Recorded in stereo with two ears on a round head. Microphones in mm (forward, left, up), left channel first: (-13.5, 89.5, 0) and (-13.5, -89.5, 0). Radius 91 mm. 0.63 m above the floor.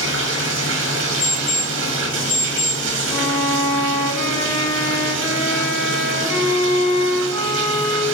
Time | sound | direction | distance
0.0 | running water | 70° right (ahead or behind) | 1.1 m
1.2 | an alarm clock | 85° left | 3 m
3.1 | a violin | 25° left (ahead or behind) | 2 m